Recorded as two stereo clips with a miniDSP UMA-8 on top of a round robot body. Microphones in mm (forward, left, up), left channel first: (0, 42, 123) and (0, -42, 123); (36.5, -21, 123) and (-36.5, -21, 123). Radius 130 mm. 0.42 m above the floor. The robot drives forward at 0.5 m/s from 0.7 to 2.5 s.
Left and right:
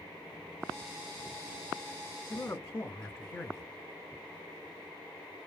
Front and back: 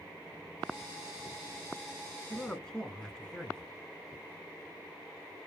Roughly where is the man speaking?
Ahead left.